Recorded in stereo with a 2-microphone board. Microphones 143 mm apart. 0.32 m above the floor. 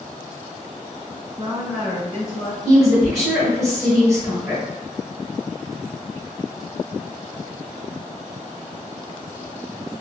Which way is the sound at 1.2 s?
40° right (ahead or behind).